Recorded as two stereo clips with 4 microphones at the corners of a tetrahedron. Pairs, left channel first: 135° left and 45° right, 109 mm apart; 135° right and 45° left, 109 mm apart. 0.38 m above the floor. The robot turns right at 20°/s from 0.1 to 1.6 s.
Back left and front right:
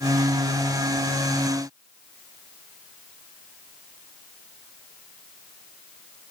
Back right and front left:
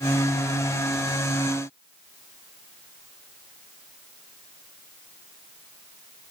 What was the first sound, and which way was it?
Only background noise.